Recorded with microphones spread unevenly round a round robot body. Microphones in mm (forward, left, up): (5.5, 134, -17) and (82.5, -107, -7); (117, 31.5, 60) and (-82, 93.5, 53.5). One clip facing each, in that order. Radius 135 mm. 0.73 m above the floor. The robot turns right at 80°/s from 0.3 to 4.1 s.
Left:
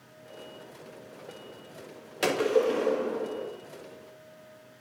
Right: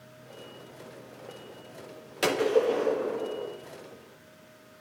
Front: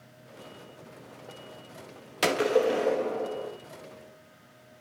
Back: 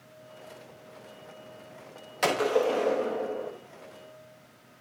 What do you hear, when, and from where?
2.2 s a gunshot: 15° left, 1.3 m; by 3.5 s 120° left, 1.3 m